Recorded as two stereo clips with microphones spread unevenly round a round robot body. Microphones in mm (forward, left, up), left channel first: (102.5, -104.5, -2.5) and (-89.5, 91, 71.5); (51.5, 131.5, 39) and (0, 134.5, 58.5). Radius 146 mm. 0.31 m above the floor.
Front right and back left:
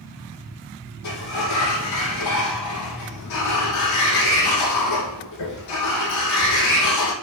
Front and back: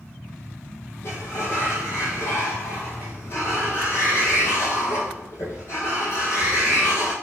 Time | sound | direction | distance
1.0 | a sliding door | 60° right | 2 m